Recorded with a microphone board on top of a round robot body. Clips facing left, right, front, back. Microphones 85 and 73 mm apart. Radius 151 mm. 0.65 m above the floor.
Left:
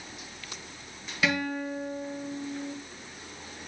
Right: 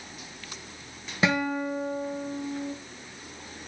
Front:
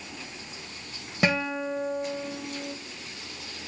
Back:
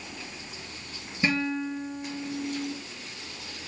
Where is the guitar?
25° right, 1.6 m.